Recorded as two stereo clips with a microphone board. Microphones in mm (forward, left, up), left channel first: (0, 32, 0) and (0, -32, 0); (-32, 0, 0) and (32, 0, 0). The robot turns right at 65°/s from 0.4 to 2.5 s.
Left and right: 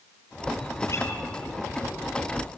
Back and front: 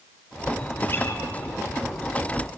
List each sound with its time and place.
0.9 s a guitar: 125° left, 2 m; by 1.2 s 145° left, 2 m